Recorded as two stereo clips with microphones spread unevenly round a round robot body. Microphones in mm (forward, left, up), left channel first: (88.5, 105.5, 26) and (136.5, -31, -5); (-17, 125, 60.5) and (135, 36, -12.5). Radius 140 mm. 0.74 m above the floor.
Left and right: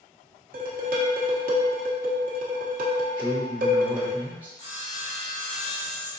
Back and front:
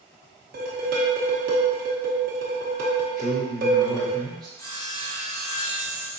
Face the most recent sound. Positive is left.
turn(degrees=70)